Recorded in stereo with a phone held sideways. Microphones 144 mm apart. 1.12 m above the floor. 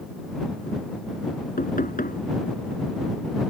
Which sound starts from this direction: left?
Knocking, at 1.6 s.